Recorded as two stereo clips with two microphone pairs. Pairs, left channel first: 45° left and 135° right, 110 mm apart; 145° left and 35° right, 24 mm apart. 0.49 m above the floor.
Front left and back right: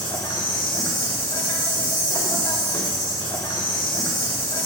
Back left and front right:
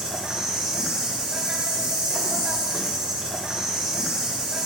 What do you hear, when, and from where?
0.0 s an insect: 15° left, 2.5 m